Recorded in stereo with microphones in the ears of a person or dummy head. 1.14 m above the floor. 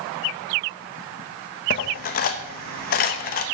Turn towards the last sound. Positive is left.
turn(degrees=45)  # may be behind; listen again after turning